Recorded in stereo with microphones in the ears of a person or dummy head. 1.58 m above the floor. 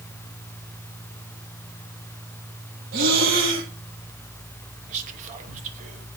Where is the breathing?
55° right (ahead or behind), 1.6 m.